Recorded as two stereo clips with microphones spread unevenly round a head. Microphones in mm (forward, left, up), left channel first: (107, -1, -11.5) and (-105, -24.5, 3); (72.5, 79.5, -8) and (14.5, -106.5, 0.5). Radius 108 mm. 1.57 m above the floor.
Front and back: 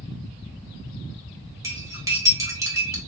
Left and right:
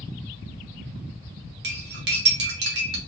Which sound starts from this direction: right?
Cutlery clinking, at 1.6 s.